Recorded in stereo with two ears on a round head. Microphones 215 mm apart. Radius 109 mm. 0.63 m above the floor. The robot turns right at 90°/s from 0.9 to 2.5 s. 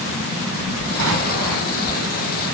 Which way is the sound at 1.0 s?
65° right.